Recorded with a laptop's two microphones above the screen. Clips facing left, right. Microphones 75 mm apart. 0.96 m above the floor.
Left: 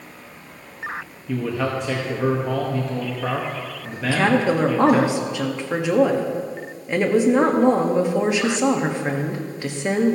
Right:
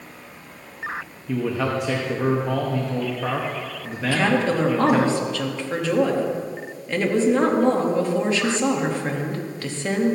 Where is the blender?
No blender in this recording.